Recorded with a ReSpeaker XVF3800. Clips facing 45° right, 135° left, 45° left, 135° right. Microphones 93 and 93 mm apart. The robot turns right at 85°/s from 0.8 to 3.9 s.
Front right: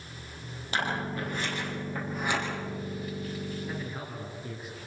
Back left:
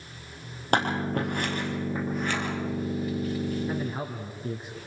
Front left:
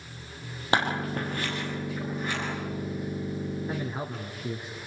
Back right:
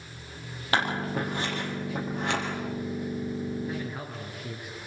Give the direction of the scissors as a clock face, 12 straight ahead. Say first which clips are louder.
Back left 6 dB, front left 1 dB; 8 o'clock.